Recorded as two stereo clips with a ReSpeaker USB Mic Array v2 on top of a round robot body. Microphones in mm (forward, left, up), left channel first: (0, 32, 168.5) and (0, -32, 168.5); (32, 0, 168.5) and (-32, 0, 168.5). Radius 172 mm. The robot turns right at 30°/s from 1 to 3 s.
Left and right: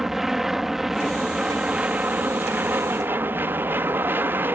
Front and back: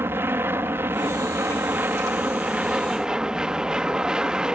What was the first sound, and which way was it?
An aircraft, 170° right.